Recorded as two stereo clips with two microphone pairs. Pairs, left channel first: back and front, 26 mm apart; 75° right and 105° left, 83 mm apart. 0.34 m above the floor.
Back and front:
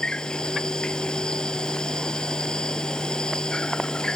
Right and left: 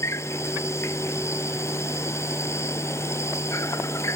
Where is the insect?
130° right.